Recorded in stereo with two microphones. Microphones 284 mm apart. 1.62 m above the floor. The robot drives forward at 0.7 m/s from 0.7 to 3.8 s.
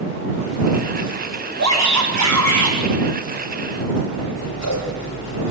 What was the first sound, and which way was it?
A shout, 70° right (ahead or behind).